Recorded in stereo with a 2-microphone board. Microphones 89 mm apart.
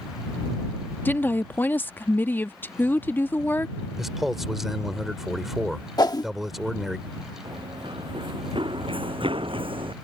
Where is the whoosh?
50° left (ahead or behind).